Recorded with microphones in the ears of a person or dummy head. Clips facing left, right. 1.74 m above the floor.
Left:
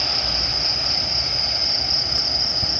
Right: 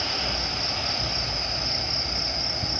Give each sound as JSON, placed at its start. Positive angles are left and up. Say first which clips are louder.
{"t": 0.0, "sound": "an insect", "louder": "left 1 dB", "side_deg": 15, "distance_m": 1.7}